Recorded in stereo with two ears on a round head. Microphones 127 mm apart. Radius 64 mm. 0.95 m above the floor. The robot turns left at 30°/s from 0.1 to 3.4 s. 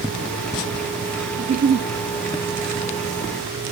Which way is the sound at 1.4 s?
85° right.